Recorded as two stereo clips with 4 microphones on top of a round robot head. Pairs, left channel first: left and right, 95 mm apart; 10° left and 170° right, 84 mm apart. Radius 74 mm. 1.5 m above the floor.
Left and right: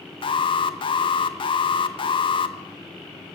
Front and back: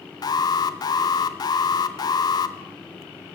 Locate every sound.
0.2 s an alarm: 50° left, 1.7 m